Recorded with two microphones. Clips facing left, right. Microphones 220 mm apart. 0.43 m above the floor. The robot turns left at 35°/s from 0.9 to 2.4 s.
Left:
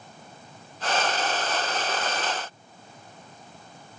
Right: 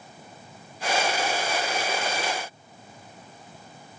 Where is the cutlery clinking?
I don't hear cutlery clinking.